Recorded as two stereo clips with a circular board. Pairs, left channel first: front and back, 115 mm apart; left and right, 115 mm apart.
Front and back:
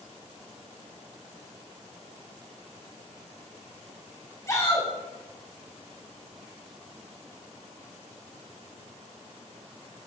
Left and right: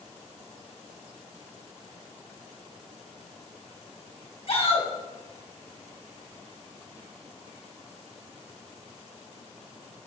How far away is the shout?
About 2.5 m.